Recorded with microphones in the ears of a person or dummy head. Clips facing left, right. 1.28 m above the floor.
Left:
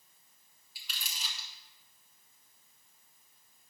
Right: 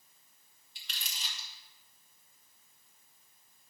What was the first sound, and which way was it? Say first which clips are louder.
Crumpling: left 1 dB; 10° left (ahead or behind).